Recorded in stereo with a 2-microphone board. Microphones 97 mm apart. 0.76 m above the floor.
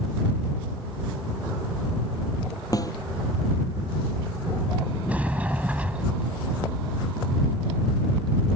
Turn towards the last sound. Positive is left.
turn(degrees=-15)  # may be behind; listen again after turning